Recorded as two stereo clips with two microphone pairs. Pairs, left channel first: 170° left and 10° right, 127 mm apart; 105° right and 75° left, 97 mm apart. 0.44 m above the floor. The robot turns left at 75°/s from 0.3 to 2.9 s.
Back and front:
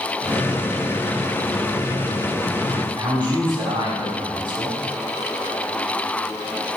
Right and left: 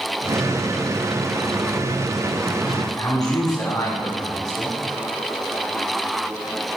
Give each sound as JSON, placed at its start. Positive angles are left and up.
{"t": 2.7, "sound": "a man speaking", "azimuth_deg": -45, "distance_m": 3.0}